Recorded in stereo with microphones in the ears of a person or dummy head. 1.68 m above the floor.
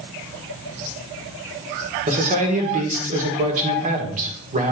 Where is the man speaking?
40° right (ahead or behind), 1.6 m.